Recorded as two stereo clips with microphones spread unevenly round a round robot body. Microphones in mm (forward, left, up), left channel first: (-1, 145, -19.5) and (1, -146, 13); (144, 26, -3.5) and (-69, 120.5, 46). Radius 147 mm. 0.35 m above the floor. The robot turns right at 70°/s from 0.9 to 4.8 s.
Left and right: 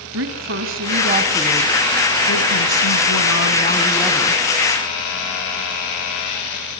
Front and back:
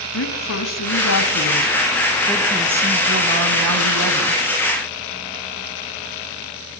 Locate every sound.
0.1 s a woman speaking: 40° right, 2.5 m; by 4.4 s 155° right, 2.5 m